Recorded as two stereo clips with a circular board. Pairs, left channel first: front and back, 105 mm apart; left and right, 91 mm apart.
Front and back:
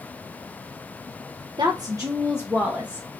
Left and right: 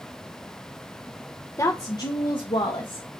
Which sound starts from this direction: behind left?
A woman speaking, at 1.6 s.